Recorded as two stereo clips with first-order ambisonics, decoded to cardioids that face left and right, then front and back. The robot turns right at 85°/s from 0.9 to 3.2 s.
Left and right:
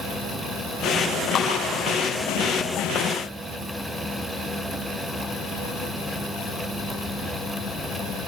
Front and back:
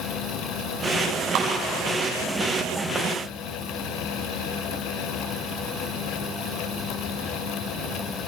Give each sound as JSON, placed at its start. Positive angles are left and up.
{"t": 1.4, "sound": "a clap", "azimuth_deg": 150, "distance_m": 6.0}